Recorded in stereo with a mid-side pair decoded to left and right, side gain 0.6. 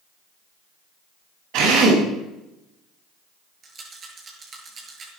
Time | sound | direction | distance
1.5 | a drill | 70° right | 9 m
3.6 | a rattle | 40° right | 7 m